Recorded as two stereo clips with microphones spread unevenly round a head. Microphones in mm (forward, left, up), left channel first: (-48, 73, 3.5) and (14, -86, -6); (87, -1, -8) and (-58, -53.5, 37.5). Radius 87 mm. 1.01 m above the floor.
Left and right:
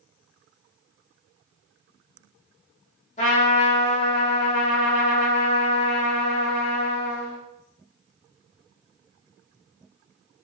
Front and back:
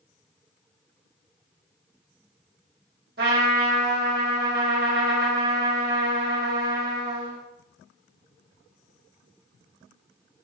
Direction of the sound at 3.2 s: 160° left.